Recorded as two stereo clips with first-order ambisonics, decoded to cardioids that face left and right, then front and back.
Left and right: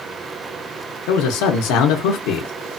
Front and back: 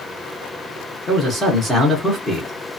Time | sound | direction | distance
1.1 | a man speaking | 85° left | 0.6 m